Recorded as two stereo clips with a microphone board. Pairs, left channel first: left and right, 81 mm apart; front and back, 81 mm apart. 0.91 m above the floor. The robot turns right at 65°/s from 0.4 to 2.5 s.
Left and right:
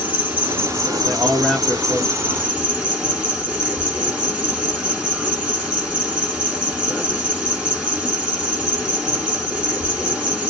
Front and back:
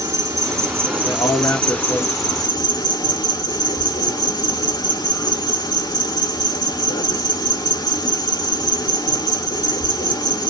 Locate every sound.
0.0 s an insect: 150° right, 1.3 m; by 10.5 s 15° right, 1.3 m
1.0 s a man speaking: 25° right, 0.7 m; by 2.6 s 70° left, 0.7 m